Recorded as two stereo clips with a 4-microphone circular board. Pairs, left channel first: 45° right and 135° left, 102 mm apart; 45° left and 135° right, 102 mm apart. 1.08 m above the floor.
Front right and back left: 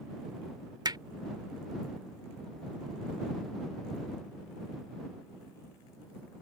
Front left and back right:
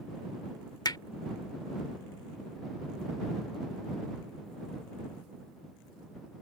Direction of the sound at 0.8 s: 90° left.